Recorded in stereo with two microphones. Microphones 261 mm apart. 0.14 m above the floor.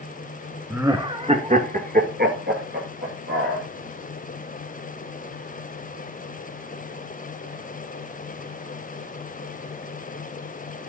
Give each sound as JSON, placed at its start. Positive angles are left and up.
{"t": 0.7, "sound": "laughter", "side_deg": -5, "distance_m": 1.0}